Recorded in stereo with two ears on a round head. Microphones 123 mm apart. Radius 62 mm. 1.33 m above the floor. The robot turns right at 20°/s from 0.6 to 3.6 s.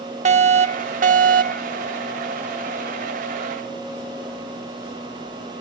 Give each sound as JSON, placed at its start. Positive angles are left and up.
{"t": 0.2, "sound": "a fire alarm", "side_deg": -55}